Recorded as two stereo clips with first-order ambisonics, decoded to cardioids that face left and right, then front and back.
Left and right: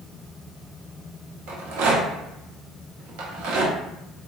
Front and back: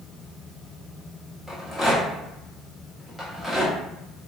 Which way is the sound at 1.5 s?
90° right.